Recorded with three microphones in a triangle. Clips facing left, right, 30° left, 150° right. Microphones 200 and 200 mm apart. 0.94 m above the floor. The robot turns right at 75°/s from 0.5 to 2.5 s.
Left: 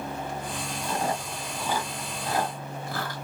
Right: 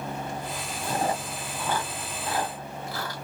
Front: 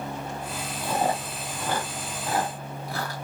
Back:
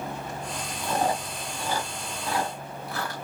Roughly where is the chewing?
Ahead right.